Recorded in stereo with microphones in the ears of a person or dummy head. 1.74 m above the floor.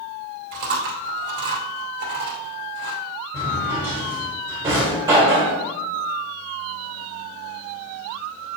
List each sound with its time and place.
0.5 s chewing: 60° right (ahead or behind), 2.5 m
3.3 s a drawer: 15° right (ahead or behind), 1.6 m